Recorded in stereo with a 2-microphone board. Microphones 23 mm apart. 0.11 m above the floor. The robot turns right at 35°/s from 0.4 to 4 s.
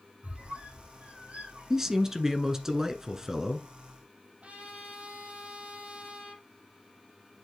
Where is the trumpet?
65° right (ahead or behind), 3 m.